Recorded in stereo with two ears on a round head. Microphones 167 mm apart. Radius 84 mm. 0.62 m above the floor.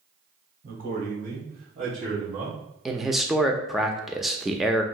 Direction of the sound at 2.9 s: Centre (ahead or behind).